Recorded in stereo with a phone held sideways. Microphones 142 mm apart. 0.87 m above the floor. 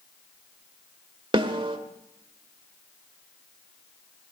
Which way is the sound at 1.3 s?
35° right (ahead or behind).